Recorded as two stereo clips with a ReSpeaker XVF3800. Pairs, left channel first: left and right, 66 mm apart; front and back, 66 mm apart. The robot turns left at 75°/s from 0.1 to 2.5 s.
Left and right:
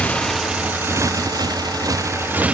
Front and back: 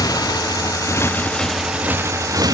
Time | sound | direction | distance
0.0 | a motorcycle | 20° left | ?